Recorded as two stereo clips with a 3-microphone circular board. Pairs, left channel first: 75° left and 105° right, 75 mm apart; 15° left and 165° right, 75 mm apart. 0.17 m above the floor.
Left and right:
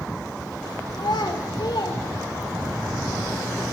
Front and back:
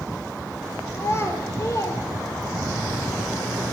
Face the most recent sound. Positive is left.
turn(degrees=45)